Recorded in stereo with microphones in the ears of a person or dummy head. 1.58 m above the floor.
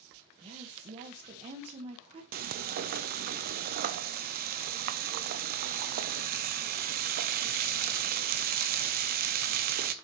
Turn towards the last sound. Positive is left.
turn(degrees=-50)  # may be behind; listen again after turning